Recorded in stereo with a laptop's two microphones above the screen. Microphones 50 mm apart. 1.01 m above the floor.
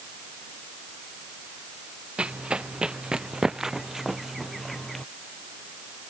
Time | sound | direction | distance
2.2 | running footsteps | 25° right (ahead or behind) | ?